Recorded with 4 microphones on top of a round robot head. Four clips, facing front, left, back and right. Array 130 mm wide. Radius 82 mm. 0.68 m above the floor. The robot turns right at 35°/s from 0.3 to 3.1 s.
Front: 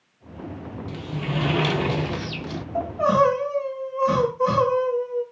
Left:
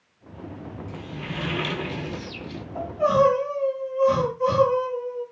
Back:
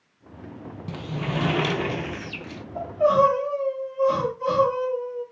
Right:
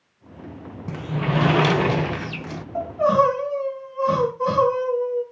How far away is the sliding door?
About 0.5 m.